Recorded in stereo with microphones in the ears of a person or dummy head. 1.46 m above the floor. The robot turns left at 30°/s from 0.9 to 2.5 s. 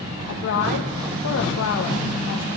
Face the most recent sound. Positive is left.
turn(degrees=65)